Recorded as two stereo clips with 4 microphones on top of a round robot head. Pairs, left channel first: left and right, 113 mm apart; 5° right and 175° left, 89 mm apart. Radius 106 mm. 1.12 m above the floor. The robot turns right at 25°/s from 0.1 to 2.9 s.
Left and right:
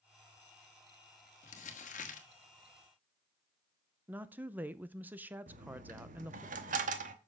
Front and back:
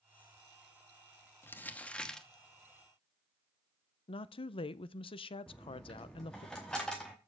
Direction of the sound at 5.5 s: 90° right.